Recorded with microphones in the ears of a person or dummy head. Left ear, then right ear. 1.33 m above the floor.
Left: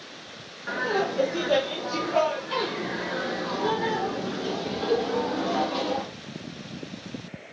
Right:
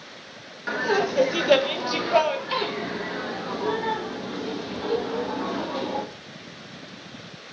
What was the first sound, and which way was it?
Laughter, 85° right.